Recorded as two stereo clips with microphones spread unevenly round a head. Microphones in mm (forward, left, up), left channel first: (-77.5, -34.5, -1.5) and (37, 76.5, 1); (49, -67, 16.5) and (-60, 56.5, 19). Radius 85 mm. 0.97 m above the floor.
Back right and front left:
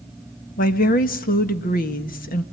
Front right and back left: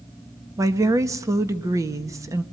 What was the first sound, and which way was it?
A woman speaking, 160° right.